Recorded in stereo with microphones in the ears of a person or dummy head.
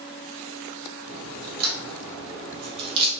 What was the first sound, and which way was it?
A crack, 35° right (ahead or behind).